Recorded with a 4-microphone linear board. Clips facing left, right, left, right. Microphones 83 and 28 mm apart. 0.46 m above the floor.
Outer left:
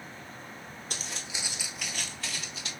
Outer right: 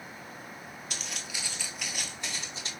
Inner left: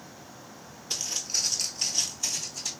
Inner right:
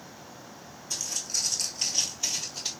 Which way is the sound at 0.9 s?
40° left (ahead or behind).